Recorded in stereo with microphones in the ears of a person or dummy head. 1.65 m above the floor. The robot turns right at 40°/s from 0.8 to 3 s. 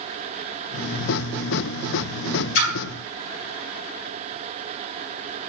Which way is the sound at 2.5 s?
70° left (ahead or behind).